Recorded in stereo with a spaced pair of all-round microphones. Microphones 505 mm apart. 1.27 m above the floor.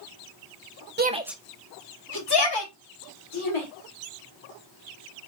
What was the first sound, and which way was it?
A shout, 20° right (ahead or behind).